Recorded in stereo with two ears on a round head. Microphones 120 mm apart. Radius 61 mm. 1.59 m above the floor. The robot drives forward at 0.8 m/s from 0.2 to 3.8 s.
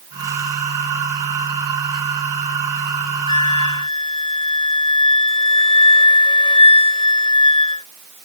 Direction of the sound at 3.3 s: 45° left (ahead or behind).